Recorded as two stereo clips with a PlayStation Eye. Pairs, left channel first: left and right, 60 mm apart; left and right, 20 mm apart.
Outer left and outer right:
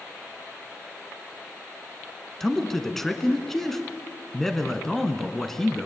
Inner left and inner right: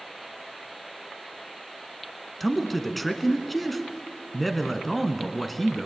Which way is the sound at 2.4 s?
5° left (ahead or behind).